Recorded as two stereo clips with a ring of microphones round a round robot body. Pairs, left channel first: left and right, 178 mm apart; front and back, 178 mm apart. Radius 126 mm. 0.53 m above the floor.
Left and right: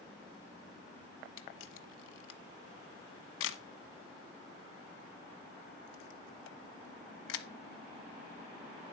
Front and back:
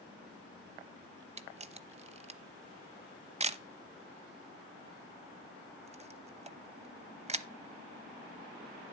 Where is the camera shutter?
125° left, 1.0 m.